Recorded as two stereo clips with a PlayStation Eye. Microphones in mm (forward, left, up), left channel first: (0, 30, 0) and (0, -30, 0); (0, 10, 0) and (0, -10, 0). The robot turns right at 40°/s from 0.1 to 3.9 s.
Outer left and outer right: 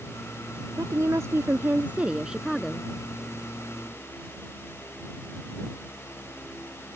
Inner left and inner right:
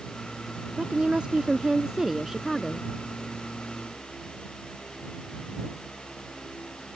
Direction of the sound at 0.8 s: 75° right.